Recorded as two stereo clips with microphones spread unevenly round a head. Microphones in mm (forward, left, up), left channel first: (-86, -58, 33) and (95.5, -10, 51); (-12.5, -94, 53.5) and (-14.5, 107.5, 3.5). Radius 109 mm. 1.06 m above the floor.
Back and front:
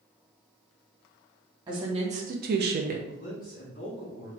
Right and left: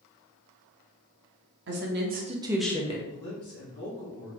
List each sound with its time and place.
1.7 s a woman speaking: 85° left, 1.2 m; by 3.0 s 25° right, 0.8 m
3.1 s a man speaking: 130° right, 1.2 m